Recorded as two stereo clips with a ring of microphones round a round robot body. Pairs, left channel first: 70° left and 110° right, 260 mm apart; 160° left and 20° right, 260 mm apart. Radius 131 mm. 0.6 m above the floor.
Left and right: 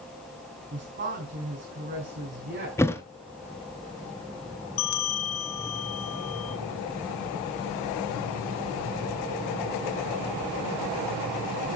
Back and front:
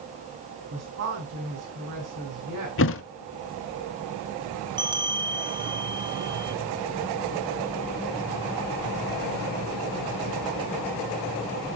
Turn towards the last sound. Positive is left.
turn(degrees=50)